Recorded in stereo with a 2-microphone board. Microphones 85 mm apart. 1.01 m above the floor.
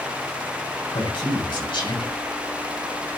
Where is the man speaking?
70° left (ahead or behind), 6.5 m.